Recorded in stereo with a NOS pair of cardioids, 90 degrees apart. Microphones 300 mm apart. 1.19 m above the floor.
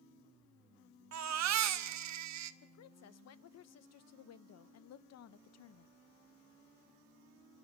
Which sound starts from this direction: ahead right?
A baby crying, at 1.1 s.